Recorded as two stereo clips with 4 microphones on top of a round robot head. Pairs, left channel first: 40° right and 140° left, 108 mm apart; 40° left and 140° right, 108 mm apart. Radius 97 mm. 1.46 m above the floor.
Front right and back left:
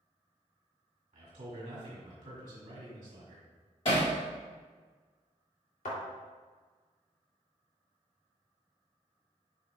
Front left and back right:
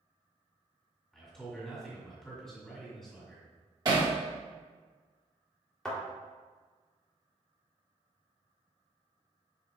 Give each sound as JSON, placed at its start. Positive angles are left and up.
{"t": 1.1, "sound": "a man speaking", "azimuth_deg": 125, "distance_m": 1.9}
{"t": 3.9, "sound": "hammering", "azimuth_deg": -80, "distance_m": 1.8}
{"t": 5.8, "sound": "a thud", "azimuth_deg": -45, "distance_m": 2.5}